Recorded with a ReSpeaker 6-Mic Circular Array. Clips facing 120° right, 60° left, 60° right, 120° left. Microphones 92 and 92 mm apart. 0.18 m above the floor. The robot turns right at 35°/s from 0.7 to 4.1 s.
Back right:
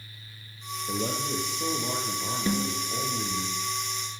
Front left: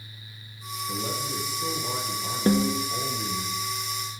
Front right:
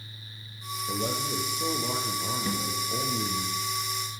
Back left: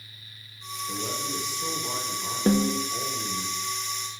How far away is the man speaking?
About 3 m.